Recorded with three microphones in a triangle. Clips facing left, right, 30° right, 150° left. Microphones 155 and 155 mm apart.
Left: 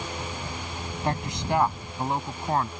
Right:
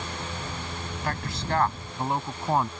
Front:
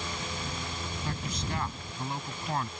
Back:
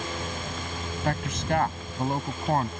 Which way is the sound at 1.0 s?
155° left.